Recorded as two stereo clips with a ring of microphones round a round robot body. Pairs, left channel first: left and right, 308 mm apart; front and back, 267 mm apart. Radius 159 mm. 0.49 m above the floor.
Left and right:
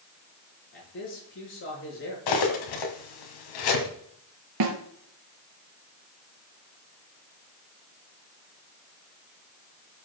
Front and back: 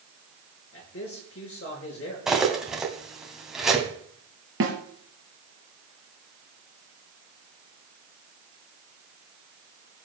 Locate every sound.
0.7 s a man speaking: 35° left, 6.5 m
2.3 s cutlery clinking: 90° left, 2.5 m
4.6 s a snare drum: 125° right, 2.5 m